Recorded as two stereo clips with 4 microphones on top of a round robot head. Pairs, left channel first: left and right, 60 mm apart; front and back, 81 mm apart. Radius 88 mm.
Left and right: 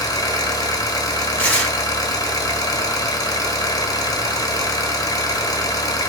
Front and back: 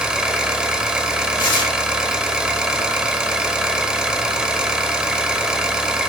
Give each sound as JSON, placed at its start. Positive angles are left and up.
{"t": 0.0, "sound": "an engine running", "azimuth_deg": 100, "distance_m": 1.1}
{"t": 1.4, "sound": "tearing paper", "azimuth_deg": 20, "distance_m": 2.5}